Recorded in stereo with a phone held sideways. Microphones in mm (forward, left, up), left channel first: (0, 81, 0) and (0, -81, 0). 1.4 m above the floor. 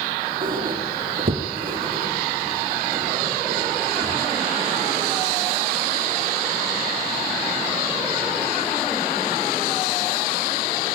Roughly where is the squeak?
Right.